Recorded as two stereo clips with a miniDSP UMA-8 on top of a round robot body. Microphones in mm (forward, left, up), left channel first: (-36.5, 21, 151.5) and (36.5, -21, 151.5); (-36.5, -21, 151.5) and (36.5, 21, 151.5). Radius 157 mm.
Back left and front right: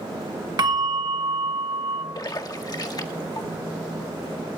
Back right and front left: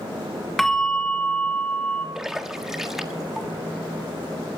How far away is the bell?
About 1.2 m.